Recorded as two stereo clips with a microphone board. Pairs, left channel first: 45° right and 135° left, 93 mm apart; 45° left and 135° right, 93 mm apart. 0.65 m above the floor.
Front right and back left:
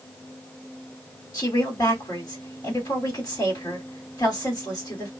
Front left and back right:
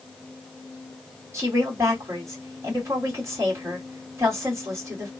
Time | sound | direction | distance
1.3 | a woman speaking | 80° right | 2.0 m